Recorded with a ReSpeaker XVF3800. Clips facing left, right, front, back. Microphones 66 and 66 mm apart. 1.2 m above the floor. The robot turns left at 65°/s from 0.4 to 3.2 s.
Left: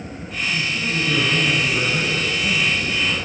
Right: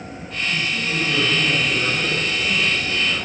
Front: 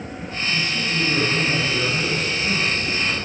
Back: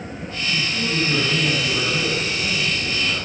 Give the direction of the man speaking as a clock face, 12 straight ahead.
4 o'clock.